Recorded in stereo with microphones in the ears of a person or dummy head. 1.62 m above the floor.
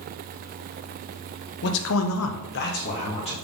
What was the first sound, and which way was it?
A man speaking, 55° left (ahead or behind).